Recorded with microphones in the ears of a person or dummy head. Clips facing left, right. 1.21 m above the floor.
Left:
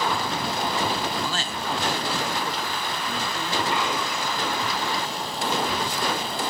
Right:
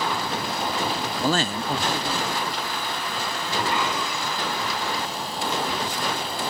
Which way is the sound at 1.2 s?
40° right (ahead or behind).